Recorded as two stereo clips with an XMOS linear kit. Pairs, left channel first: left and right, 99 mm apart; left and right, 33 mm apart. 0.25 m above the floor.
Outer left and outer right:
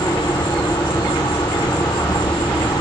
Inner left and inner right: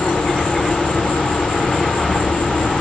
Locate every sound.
0.0 s an insect: 40° left (ahead or behind), 0.7 m